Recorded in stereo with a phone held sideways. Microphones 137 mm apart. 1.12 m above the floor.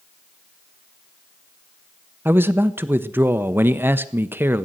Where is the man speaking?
15° right (ahead or behind), 0.8 m.